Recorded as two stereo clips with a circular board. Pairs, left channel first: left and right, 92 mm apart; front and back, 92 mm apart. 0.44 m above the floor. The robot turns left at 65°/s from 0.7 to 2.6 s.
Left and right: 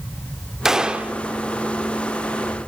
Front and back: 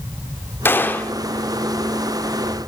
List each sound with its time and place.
0.7 s a gunshot: 15° right, 0.6 m; by 1.1 s 45° right, 0.6 m